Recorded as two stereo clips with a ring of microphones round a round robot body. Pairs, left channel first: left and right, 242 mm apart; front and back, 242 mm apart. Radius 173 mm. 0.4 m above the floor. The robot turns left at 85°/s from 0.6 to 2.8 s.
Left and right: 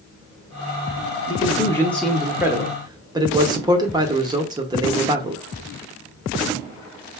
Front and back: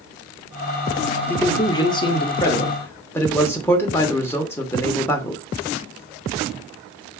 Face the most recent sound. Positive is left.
turn(degrees=-60)